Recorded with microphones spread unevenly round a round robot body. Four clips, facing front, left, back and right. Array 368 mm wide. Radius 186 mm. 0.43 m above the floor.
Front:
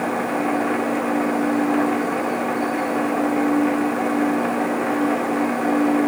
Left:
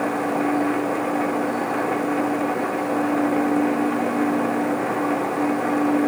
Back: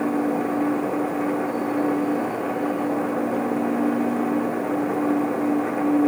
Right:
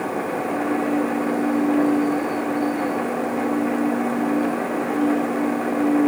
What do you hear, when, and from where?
Only background noise.